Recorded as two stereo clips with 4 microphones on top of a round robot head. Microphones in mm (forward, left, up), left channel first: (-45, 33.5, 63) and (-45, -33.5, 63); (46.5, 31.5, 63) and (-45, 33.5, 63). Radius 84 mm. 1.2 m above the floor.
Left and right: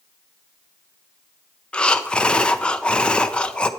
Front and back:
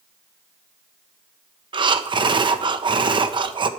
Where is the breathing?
165° left, 0.8 m.